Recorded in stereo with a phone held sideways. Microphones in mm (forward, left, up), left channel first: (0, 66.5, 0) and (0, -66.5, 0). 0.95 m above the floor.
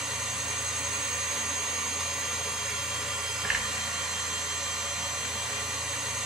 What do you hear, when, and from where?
0.0 s a machine running: 5° right (ahead or behind), 1.0 m